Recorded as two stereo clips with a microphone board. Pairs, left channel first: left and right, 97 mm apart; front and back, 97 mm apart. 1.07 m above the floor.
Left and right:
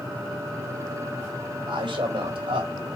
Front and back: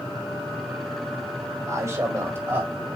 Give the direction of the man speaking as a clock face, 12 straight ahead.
4 o'clock.